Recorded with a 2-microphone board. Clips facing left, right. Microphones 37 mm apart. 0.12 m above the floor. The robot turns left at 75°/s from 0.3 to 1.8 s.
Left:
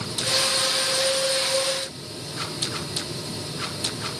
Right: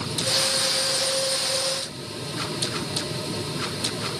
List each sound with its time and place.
Only background noise.